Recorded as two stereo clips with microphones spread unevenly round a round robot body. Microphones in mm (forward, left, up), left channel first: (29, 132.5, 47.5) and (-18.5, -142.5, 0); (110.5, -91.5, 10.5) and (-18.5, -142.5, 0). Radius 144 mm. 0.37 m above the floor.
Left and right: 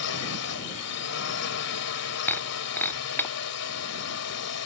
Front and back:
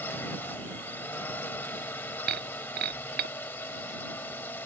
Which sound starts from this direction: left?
A drone, at 0.0 s.